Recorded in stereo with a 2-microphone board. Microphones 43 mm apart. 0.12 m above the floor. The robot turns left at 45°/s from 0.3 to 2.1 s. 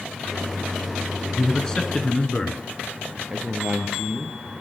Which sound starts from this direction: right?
A man speaking, at 3.3 s.